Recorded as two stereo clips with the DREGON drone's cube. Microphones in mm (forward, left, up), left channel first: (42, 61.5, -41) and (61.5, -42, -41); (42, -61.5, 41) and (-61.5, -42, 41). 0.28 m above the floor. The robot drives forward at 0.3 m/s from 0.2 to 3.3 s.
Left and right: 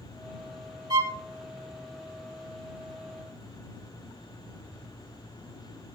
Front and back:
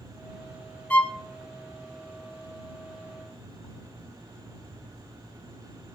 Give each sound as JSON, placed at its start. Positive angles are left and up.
{"t": 0.9, "sound": "a violin", "azimuth_deg": -80, "distance_m": 0.5}